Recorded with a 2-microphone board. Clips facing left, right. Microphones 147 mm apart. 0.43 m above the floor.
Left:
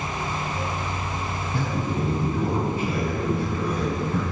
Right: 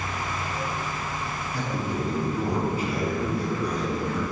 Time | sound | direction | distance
1.5 | a man speaking | 25° left (ahead or behind) | 4 m